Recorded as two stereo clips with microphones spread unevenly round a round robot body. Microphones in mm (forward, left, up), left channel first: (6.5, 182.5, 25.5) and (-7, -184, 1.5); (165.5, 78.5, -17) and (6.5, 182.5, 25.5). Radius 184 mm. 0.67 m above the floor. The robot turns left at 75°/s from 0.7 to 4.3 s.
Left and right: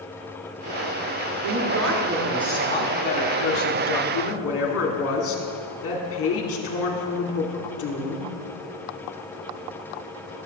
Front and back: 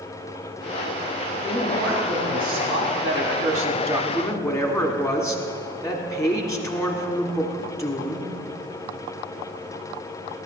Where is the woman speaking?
110° right, 1.8 m; by 8.3 s 35° left, 1.8 m.